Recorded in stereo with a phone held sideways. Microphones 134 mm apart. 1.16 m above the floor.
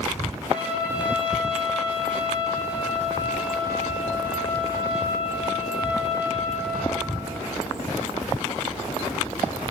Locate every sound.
0.5 s a trumpet: 10° right (ahead or behind), 5.5 m